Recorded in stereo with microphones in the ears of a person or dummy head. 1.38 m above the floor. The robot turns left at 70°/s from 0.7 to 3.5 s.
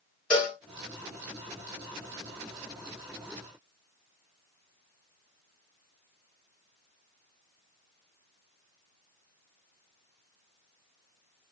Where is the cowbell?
5° left (ahead or behind), 1.0 m.